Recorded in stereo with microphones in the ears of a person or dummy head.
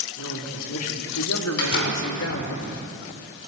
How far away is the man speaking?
About 3.5 m.